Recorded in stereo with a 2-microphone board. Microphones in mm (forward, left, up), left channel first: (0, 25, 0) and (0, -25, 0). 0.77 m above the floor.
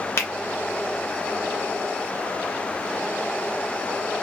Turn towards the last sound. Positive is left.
turn(degrees=55)  # may be behind; listen again after turning